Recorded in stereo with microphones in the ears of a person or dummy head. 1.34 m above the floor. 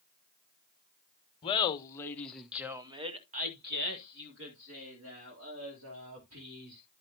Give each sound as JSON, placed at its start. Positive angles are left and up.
{"t": 1.4, "sound": "laughter", "side_deg": 25, "distance_m": 1.6}